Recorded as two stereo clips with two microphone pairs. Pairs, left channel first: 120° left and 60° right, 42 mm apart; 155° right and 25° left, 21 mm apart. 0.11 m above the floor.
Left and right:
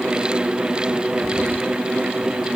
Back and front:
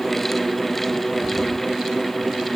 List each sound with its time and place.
Only background noise.